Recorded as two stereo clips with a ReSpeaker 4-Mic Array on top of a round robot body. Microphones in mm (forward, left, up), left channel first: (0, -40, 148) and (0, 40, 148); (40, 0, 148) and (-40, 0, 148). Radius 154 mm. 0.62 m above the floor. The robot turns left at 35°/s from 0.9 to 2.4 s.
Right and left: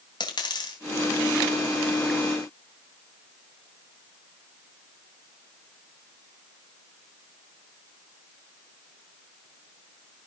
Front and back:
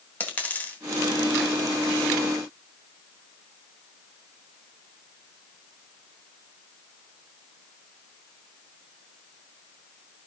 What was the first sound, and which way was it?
A dropped coin, 70° right.